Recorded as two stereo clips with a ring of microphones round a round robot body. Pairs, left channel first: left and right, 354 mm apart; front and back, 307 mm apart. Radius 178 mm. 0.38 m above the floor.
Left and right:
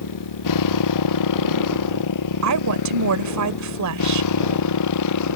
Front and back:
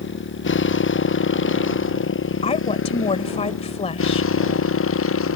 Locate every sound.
0.0 s a motorcycle: 50° left; by 5.4 s 45° left
2.4 s a woman speaking: 70° right